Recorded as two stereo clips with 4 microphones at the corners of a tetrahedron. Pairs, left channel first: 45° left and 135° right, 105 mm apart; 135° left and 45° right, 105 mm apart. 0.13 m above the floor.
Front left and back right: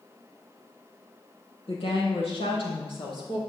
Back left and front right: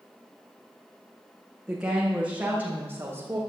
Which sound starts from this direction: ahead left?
A woman speaking, at 1.7 s.